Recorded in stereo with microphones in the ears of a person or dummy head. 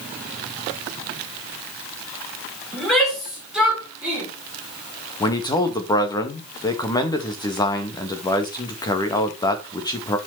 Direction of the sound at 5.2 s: 20° left (ahead or behind).